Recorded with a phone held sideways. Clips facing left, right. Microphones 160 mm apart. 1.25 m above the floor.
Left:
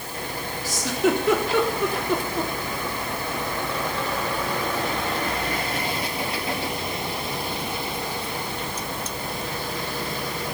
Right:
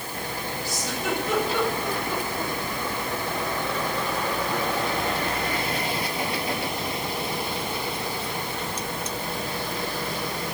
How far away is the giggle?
About 3.5 m.